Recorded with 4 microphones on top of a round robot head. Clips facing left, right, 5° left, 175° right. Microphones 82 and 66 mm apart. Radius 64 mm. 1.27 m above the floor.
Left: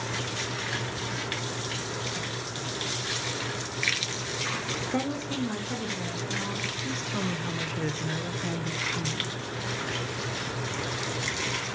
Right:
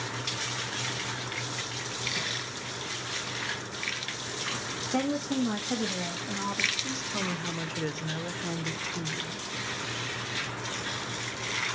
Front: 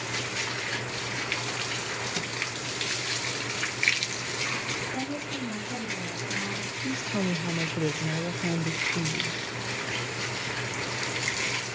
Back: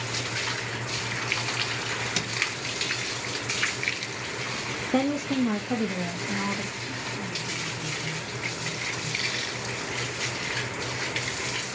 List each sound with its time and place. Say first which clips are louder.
4.9 s a woman speaking: right 3 dB, back 8 dB; straight behind, 1.1 m; by 6.7 s 145° right, 2 m
6.8 s a woman speaking: left 2 dB, front 4 dB; straight ahead, 0.6 m